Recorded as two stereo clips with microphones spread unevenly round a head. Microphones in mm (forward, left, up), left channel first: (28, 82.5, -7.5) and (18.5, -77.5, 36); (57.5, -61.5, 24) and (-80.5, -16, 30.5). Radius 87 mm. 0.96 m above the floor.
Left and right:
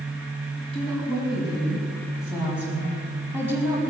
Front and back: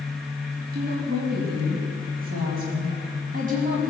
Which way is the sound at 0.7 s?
175° left.